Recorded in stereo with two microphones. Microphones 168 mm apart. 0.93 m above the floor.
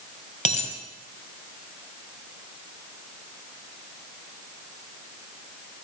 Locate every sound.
0.5 s a dropped coin: 45° left (ahead or behind), 1.8 m